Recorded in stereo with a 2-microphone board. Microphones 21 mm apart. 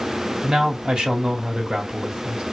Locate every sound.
0.4 s a man speaking: 40° right (ahead or behind), 2 m